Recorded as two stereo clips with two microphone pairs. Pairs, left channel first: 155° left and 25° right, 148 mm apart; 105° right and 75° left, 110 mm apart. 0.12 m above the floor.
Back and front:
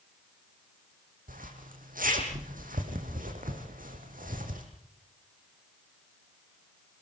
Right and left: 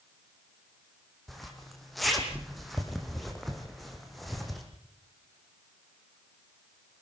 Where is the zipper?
15° right, 4.5 m.